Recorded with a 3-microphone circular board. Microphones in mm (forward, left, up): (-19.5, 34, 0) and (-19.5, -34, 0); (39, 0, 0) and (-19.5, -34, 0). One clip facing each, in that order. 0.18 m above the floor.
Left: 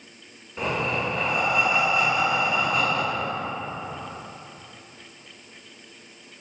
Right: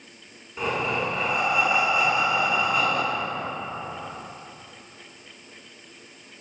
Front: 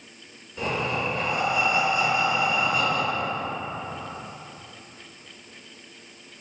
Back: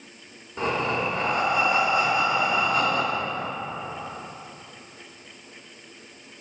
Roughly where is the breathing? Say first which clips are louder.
Even, back 2 dB; behind.